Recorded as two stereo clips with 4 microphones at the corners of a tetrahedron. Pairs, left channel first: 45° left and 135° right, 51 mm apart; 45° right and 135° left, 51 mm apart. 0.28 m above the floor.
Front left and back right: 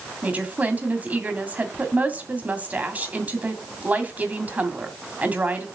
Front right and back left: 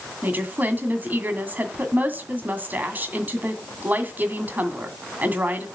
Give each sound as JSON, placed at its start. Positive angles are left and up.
{"t": 0.2, "sound": "a woman speaking", "azimuth_deg": 175, "distance_m": 2.0}